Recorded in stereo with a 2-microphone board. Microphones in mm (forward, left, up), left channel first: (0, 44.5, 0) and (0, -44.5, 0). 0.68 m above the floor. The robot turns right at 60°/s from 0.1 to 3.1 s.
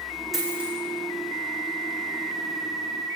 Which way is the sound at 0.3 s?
Centre (ahead or behind).